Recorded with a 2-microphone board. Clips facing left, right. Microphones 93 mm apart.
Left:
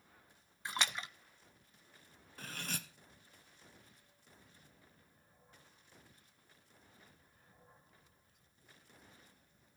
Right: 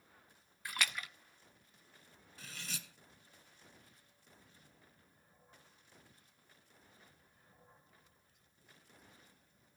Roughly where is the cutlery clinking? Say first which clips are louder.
Left 5 dB; left.